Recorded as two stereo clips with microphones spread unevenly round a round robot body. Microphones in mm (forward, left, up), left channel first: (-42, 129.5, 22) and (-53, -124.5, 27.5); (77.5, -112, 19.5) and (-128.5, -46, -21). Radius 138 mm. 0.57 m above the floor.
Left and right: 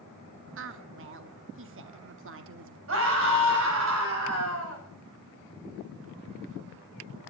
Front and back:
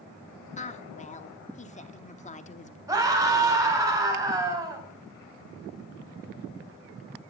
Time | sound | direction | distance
0.6 | a woman speaking | 75° right | 0.9 m
2.9 | a scream | 125° right | 4 m